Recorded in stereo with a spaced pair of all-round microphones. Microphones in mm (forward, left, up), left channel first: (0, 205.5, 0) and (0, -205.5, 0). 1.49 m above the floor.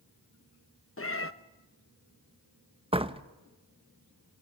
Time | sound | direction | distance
1.0 | a cat meowing | 30° left (ahead or behind) | 0.8 m
2.9 | a door slam | 15° right (ahead or behind) | 0.9 m